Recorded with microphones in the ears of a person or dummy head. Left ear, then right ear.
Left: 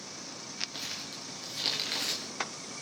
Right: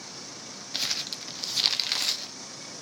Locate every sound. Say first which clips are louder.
0.7 s crumpling: right 8 dB; 35° right (ahead or behind), 1.2 m